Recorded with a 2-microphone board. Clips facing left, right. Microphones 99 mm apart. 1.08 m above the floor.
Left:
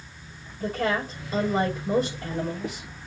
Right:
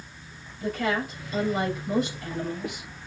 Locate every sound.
0.6 s a woman speaking: 40° left (ahead or behind), 6 m